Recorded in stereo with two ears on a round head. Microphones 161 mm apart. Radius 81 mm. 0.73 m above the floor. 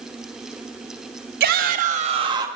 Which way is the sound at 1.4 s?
55° right (ahead or behind).